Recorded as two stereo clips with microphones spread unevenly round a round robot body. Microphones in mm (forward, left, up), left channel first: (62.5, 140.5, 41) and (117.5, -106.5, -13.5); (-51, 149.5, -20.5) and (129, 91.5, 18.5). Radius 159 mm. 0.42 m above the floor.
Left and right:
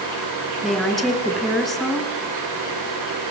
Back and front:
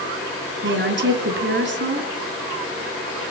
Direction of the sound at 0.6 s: 10° left.